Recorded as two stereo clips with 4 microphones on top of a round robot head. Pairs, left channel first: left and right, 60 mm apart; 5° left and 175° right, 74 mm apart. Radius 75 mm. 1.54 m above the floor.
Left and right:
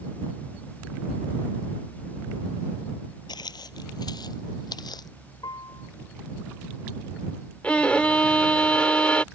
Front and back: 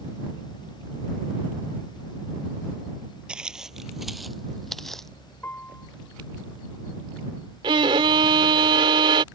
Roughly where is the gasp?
I don't hear a gasp.